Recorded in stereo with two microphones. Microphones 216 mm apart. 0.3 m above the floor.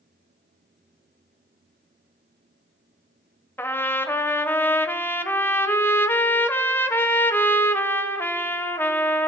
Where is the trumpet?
10° left (ahead or behind), 0.8 m.